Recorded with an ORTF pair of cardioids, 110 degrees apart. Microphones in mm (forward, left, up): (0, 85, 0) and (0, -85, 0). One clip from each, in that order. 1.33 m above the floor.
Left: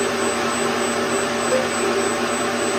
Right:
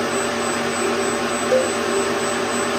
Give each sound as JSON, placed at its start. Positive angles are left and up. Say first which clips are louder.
{"t": 1.5, "sound": "a cowbell", "louder": "right 4 dB", "azimuth_deg": -15, "distance_m": 0.6}